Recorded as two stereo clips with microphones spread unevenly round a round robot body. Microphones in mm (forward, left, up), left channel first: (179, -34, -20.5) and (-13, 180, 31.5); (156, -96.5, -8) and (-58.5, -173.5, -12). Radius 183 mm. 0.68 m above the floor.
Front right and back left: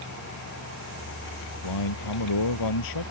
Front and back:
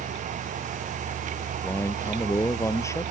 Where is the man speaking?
60° right; by 3.1 s 55° right.